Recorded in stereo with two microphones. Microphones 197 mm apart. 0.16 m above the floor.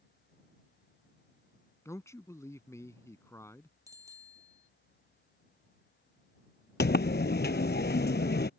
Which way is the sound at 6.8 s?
65° left (ahead or behind).